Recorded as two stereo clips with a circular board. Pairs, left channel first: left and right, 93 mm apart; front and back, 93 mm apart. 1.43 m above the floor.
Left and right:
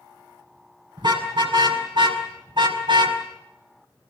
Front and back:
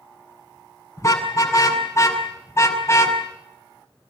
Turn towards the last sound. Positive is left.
turn(degrees=-60)